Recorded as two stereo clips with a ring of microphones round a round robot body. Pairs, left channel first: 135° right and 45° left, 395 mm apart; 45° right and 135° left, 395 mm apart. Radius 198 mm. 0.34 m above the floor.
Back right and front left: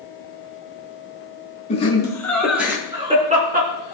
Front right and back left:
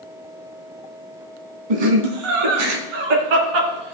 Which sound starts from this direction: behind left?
Laughter, at 1.7 s.